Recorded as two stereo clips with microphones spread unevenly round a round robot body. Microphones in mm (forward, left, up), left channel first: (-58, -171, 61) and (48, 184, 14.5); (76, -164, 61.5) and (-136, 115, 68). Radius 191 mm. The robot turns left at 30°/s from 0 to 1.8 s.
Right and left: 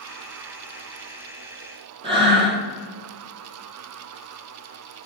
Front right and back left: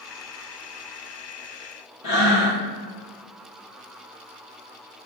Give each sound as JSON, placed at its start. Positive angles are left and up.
{"t": 2.0, "sound": "breathing", "azimuth_deg": -5, "distance_m": 1.9}